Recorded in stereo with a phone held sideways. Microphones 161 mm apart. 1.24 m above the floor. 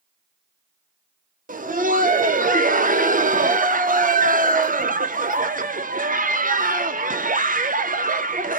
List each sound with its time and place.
1.5 s laughter: 55° right (ahead or behind), 0.7 m